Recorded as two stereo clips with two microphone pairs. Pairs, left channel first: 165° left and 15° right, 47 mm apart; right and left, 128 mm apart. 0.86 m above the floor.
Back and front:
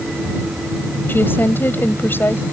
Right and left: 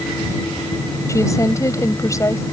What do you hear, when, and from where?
1.1 s a woman speaking: 155° right